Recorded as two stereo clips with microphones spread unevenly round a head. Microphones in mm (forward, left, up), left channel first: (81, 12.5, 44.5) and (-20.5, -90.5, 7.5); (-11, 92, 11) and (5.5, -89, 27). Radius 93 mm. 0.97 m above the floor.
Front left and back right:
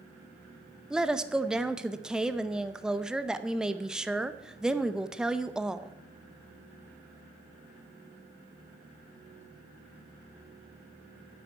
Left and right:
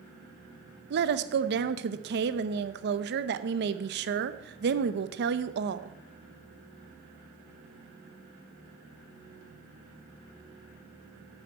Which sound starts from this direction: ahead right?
A woman speaking, at 0.9 s.